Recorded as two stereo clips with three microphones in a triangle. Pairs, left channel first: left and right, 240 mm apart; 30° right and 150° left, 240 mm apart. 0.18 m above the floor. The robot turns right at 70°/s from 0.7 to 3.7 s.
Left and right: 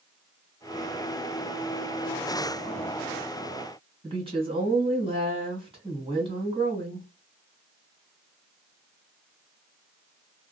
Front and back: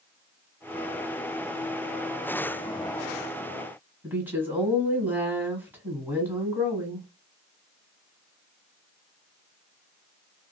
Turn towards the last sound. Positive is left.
turn(degrees=-135)